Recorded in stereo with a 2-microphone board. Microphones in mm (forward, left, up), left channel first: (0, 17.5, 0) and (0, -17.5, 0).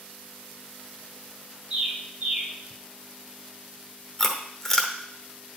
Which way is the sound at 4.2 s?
15° left (ahead or behind).